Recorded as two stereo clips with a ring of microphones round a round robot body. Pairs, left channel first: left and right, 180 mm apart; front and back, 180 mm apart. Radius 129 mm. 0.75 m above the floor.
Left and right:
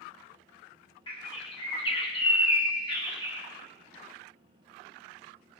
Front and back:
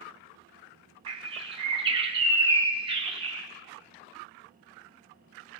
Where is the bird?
135° left, 1.3 m.